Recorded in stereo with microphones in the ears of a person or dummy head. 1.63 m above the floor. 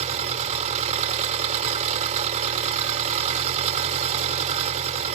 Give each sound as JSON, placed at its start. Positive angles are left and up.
{"t": 0.0, "sound": "an engine running", "side_deg": -40}